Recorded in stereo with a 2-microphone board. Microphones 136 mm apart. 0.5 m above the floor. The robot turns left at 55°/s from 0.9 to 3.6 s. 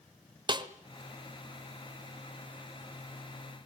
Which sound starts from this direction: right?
A snare drum, at 0.5 s.